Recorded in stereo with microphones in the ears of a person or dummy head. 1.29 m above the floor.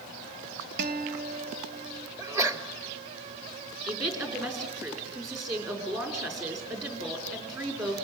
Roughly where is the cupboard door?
I don't hear a cupboard door.